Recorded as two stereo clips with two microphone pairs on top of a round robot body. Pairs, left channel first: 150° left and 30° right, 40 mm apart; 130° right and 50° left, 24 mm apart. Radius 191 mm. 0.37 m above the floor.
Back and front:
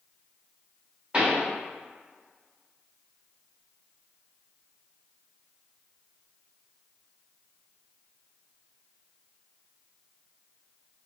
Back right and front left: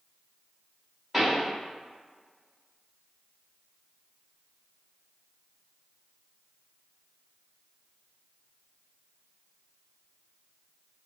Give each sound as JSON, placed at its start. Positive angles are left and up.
{"t": 1.1, "sound": "a pop", "azimuth_deg": -10, "distance_m": 1.5}